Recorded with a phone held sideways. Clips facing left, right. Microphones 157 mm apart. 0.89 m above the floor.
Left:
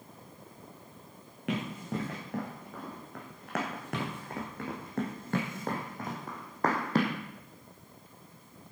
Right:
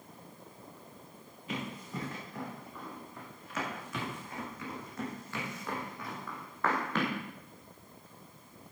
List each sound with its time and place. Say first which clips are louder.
1.5 s running footsteps: left 5 dB; 80° left, 5 m; by 7.2 s 35° left (ahead or behind), 2.5 m